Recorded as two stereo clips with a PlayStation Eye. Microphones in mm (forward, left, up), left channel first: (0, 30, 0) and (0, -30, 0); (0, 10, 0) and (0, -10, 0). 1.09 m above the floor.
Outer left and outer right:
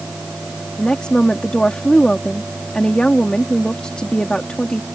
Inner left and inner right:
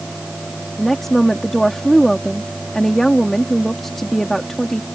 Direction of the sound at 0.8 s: 15° left (ahead or behind).